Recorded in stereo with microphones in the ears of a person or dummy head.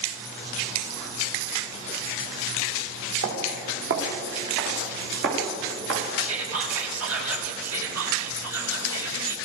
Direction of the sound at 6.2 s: 85° right.